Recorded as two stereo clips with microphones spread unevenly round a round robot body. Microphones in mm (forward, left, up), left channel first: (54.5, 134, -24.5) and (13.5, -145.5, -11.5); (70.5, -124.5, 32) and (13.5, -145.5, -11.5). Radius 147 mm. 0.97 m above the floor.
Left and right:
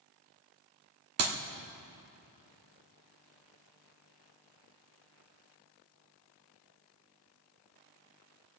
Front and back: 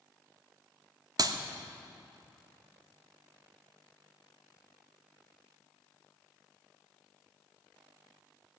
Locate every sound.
1.2 s a clap: 140° right, 1.3 m